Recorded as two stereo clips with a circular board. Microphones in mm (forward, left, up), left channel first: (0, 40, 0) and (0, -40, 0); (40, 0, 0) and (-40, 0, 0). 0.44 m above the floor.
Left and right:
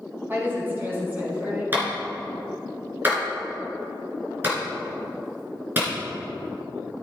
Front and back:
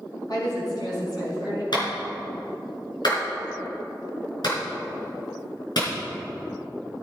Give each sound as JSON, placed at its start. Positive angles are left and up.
{"t": 0.3, "sound": "a woman speaking", "azimuth_deg": -30, "distance_m": 4.5}
{"t": 1.7, "sound": "a clap", "azimuth_deg": -25, "distance_m": 5.0}